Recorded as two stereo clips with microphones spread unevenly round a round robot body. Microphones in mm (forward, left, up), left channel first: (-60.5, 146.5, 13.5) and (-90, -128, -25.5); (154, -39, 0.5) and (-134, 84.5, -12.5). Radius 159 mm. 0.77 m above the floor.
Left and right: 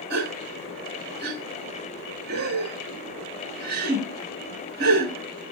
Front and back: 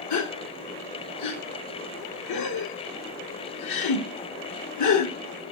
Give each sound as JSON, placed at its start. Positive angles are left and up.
{"t": 0.1, "sound": "a gasp", "azimuth_deg": -50, "distance_m": 1.4}